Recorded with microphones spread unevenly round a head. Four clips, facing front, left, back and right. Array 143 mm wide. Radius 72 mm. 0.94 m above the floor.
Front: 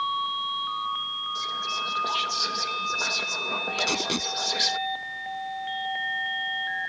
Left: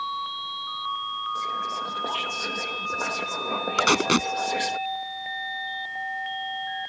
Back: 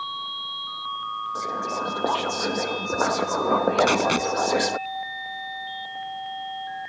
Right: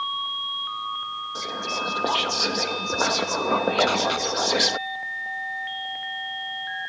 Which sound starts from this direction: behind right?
Whispering, at 1.4 s.